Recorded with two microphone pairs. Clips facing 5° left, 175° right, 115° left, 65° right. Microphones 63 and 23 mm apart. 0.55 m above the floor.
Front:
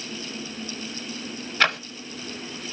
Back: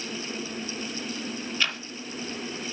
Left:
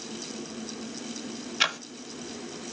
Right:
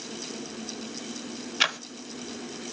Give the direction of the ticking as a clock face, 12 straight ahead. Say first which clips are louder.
Front 9 dB, right 1 dB; 11 o'clock.